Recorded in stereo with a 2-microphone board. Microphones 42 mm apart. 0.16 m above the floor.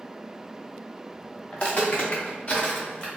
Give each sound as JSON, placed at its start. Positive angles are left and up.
{"t": 1.5, "sound": "footsteps", "side_deg": 40, "distance_m": 1.3}